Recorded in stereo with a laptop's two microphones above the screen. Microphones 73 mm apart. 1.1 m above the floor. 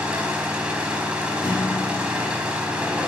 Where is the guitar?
75° left (ahead or behind), 2.5 m.